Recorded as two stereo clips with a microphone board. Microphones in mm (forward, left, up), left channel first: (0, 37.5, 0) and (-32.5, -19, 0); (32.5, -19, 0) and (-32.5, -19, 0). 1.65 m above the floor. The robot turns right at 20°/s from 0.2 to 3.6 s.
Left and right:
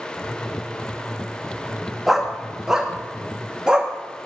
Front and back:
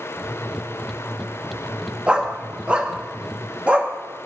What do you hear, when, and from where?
2.1 s a dog barking: 155° left, 1.1 m; by 3.9 s 175° right, 1.1 m